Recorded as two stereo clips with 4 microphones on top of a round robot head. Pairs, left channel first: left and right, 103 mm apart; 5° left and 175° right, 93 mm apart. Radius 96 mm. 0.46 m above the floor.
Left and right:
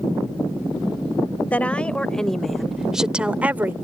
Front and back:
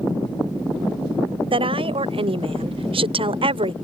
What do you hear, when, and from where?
1.5 s a woman speaking: 165° left; by 3.7 s 160° right